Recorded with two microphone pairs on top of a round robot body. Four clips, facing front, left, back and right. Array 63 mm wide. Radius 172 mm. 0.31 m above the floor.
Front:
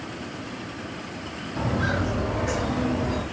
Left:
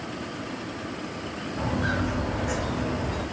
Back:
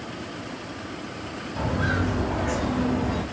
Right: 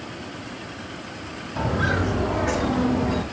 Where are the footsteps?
100° right, 4.5 m.